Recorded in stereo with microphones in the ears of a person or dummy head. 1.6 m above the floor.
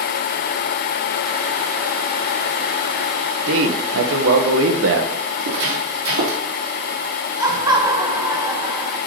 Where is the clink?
I don't hear a clink.